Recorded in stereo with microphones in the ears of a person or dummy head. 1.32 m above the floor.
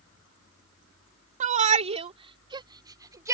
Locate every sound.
1.4 s a shout: 40° right (ahead or behind); by 3.3 s 15° right (ahead or behind)